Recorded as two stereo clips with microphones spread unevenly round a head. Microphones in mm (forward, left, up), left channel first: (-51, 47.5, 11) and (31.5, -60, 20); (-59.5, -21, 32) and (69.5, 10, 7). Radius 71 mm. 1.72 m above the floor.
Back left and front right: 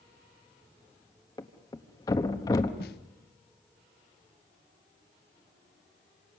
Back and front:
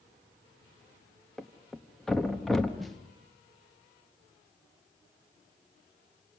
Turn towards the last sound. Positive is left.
turn(degrees=110)